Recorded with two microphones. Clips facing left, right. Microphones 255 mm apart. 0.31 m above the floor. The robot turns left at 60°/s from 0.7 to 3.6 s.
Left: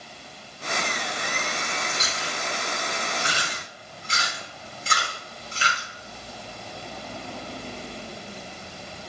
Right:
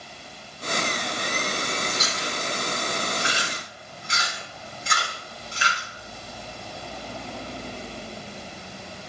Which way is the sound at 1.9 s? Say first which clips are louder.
Right 3 dB; 20° left (ahead or behind).